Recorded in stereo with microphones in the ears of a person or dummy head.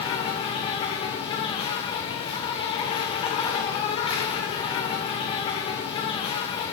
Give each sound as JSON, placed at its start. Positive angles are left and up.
{"t": 0.0, "sound": "an insect", "side_deg": 35, "distance_m": 1.1}